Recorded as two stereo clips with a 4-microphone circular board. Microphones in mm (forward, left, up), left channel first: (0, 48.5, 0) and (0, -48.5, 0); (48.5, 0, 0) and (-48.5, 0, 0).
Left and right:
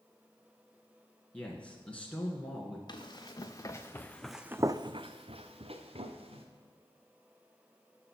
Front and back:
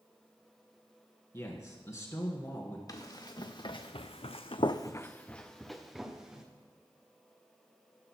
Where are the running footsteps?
50° left, 1.6 m; by 6.5 s 100° right, 1.8 m.